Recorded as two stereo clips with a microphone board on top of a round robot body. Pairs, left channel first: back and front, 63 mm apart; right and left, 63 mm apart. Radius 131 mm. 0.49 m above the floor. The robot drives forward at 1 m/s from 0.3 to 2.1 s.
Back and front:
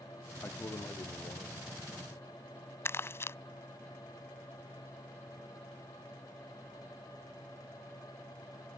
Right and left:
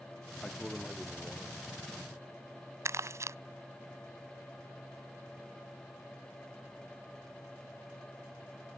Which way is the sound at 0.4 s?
170° right.